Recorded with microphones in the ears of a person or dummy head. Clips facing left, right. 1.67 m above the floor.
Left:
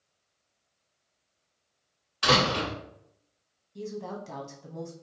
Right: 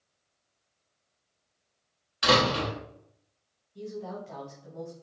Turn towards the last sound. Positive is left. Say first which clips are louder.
# left 1 dB
turn(degrees=60)  # may be behind; listen again after turning